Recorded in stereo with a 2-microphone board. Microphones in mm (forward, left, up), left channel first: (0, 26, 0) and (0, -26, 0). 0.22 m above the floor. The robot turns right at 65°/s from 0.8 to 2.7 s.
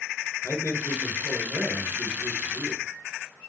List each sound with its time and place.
0.4 s a man speaking: 135° left, 3 m; by 2.8 s 105° right, 3 m